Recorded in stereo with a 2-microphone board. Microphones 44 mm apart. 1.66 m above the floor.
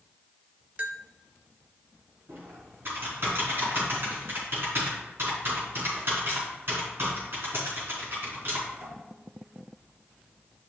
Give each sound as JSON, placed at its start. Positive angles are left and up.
{"t": 0.8, "sound": "a bell", "side_deg": -35, "distance_m": 0.7}
{"t": 2.3, "sound": "typing on a keyboard", "side_deg": -60, "distance_m": 4.0}